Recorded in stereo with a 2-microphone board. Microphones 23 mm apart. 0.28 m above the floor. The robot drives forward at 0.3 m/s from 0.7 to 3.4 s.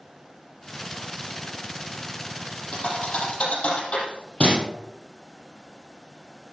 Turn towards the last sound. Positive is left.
turn(degrees=55)  # may be behind; listen again after turning